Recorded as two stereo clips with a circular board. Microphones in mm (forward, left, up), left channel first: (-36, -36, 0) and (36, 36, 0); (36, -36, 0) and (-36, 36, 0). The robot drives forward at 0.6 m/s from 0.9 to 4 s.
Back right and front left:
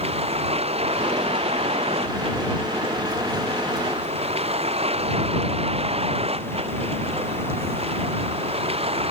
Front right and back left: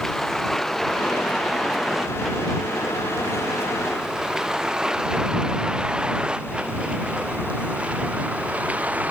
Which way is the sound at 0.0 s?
40° left.